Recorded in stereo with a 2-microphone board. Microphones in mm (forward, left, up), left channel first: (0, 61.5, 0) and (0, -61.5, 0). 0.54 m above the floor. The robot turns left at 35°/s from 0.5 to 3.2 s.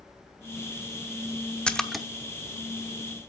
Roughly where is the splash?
Centre.